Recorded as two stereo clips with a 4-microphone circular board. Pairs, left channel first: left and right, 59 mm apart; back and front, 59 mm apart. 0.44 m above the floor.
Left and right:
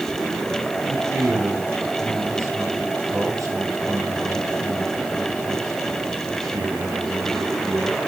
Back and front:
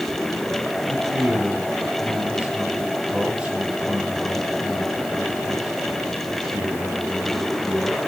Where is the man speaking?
70° right, 8 m.